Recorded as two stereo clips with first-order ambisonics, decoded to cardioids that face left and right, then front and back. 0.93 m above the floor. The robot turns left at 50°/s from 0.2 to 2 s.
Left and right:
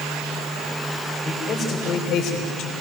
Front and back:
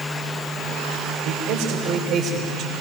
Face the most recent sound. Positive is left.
turn(degrees=130)